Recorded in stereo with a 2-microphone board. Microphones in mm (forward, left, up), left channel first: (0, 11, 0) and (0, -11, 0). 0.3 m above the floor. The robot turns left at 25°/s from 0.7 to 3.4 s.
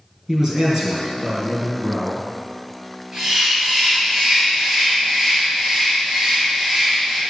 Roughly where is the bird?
Right.